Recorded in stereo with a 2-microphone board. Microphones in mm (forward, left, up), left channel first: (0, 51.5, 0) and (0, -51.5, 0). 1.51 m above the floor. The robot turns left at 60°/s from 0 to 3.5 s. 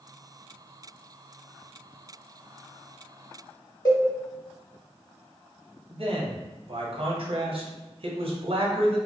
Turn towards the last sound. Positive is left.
turn(degrees=-60)  # may be behind; listen again after turning